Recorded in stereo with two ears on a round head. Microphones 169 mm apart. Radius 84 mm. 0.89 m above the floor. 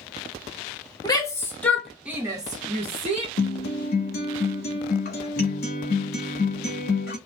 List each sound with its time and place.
1.0 s a shout: 20° left (ahead or behind), 1.0 m; by 3.3 s 35° right (ahead or behind), 1.0 m
3.4 s a guitar: 50° left (ahead or behind), 1.0 m